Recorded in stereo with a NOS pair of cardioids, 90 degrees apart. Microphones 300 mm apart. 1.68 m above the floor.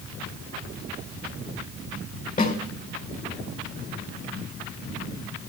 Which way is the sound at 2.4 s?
30° left.